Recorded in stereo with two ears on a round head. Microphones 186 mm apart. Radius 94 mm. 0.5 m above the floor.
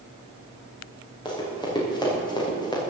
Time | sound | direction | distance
1.2 | running footsteps | 25° left (ahead or behind) | 7.5 m